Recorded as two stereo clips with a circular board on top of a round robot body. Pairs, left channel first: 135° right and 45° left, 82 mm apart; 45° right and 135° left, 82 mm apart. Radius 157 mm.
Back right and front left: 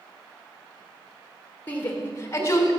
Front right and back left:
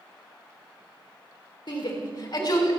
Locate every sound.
1.7 s a shout: 65° right, 3.5 m; by 2.7 s 85° right, 3.5 m